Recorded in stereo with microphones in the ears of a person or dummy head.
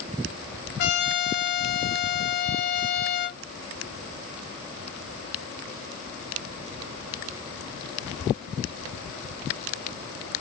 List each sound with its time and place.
0.8 s a trumpet: 60° left (ahead or behind), 0.9 m